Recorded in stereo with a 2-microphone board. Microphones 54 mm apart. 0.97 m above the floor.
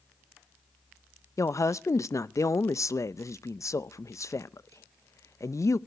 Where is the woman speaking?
65° left (ahead or behind), 0.6 m.